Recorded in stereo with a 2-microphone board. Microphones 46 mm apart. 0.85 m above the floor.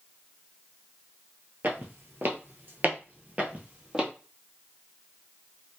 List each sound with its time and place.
1.6 s footsteps: 45° right (ahead or behind), 1.3 m; by 4.1 s 20° right (ahead or behind), 1.6 m